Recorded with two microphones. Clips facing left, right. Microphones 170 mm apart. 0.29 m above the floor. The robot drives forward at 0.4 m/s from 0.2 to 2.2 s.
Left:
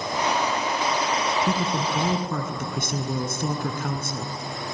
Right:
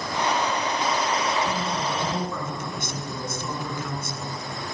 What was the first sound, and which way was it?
A woman speaking, 60° left (ahead or behind).